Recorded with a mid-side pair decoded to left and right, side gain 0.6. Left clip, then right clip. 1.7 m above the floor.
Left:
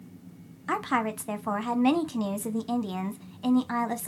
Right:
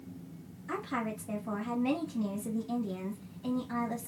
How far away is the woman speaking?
About 0.7 m.